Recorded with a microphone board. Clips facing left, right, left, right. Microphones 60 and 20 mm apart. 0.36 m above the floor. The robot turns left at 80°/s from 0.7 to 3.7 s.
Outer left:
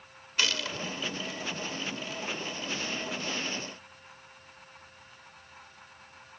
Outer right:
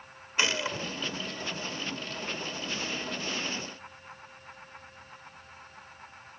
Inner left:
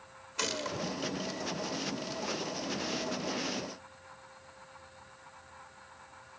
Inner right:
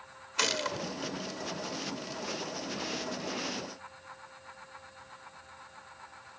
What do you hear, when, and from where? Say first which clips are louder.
0.4 s a gunshot: outer right 2 dB, inner right 4 dB; 25° right (ahead or behind), 1.2 m